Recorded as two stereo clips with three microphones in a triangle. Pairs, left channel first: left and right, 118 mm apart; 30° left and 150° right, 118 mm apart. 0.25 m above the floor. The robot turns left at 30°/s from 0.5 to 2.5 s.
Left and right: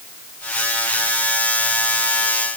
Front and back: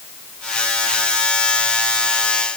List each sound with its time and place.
Only background noise.